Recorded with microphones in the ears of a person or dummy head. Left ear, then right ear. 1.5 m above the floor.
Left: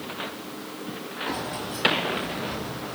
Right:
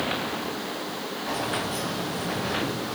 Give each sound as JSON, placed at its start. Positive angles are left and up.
{"t": 1.3, "sound": "keys jangling", "side_deg": 25, "distance_m": 1.0}